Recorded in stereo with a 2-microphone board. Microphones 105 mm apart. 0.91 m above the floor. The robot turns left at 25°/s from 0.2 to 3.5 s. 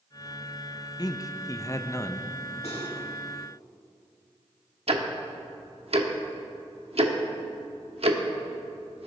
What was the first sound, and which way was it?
A man speaking, 70° left.